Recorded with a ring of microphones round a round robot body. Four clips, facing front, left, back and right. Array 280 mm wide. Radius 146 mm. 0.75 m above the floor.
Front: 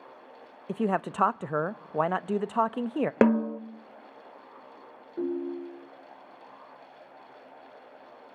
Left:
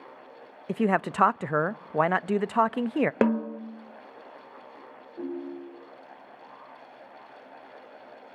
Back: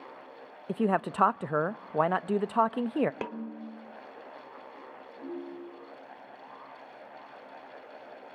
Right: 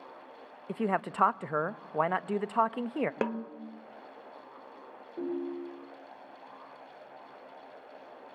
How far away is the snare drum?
About 0.9 m.